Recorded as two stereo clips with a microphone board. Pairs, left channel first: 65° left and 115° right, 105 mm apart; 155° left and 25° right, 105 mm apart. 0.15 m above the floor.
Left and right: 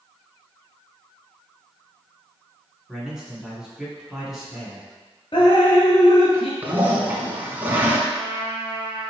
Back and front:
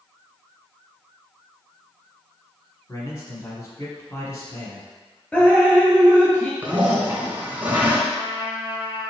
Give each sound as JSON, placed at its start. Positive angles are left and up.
{"t": 2.9, "sound": "a man speaking", "azimuth_deg": 165, "distance_m": 1.2}
{"t": 5.3, "sound": "dripping", "azimuth_deg": 85, "distance_m": 0.8}
{"t": 6.6, "sound": "a toilet flushing", "azimuth_deg": -70, "distance_m": 0.8}
{"t": 8.1, "sound": "a trumpet", "azimuth_deg": -140, "distance_m": 0.8}